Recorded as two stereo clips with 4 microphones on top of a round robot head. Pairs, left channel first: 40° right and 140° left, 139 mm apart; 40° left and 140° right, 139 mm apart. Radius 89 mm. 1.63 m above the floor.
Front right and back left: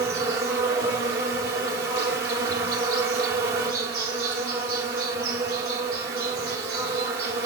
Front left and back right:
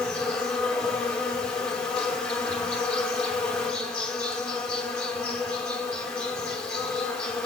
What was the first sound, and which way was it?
An insect, 125° left.